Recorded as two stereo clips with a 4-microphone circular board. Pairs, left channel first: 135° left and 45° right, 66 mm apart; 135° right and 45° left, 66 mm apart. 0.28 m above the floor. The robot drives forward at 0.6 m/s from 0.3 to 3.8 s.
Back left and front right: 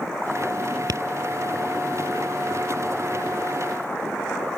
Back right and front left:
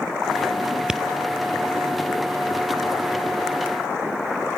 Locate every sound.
0.9 s tapping: 35° right; by 1.0 s 40° right